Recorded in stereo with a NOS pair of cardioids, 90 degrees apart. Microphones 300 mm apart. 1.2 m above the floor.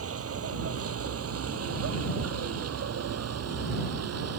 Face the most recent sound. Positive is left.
turn(degrees=-55)